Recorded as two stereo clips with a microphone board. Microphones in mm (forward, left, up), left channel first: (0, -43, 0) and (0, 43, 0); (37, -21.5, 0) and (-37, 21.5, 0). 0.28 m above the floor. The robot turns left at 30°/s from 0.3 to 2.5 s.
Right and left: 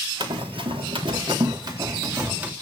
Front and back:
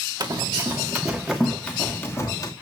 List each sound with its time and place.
0.2 s running footsteps: 105° left, 1.9 m; by 2.5 s 15° left, 3 m